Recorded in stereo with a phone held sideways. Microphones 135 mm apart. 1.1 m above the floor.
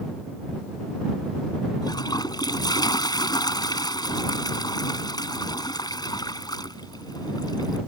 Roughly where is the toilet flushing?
Left.